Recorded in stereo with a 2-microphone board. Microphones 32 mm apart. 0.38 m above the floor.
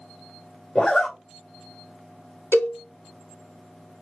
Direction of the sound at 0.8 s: 20° left (ahead or behind).